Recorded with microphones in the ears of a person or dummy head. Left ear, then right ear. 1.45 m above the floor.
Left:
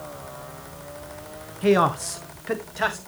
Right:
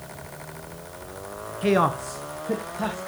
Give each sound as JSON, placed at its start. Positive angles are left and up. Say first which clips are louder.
{"t": 1.6, "sound": "a man speaking", "louder": "left 2 dB", "side_deg": -5, "distance_m": 0.6}